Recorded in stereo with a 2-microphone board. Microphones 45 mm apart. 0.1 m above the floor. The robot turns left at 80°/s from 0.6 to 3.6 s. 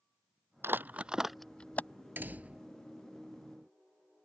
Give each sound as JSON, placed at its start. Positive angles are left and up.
{"t": 0.6, "sound": "crumpling", "side_deg": -55}
{"t": 2.2, "sound": "a door slam", "azimuth_deg": -115}